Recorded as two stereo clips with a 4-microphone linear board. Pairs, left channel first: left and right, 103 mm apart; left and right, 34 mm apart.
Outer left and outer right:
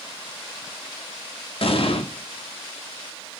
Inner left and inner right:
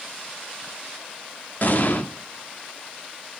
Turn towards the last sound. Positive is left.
turn(degrees=60)  # may be behind; listen again after turning